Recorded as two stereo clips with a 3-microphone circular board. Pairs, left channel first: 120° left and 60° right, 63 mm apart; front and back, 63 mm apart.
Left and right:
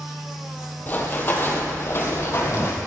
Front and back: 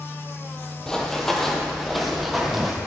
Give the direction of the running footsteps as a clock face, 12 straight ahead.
10 o'clock.